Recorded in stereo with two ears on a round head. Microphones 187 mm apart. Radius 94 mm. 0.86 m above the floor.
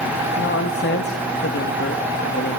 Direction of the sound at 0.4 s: 55° left (ahead or behind).